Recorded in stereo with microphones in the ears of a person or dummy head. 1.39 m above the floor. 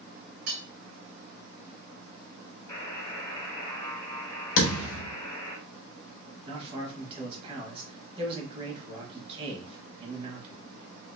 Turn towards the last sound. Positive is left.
turn(degrees=-30)  # may be behind; listen again after turning